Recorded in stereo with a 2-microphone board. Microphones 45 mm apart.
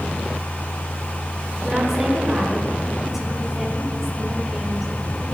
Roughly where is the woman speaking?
Centre.